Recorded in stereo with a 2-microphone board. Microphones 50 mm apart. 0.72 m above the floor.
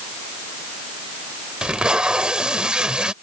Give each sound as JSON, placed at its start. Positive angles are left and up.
{"t": 1.6, "sound": "tape being pulled", "side_deg": -20}